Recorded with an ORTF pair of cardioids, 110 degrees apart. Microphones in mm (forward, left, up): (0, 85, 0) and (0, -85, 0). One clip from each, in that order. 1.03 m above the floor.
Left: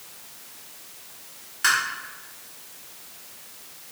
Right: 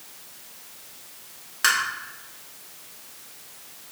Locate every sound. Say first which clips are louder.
1.6 s tapping: even; 20° right, 1.7 m